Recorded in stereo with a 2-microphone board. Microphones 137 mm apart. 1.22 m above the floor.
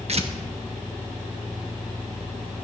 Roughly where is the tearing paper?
Right.